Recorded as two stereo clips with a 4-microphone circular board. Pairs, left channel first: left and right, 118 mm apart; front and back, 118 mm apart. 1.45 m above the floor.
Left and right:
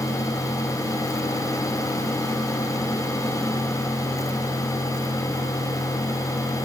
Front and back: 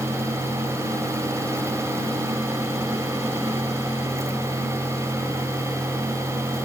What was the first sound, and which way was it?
Only background noise.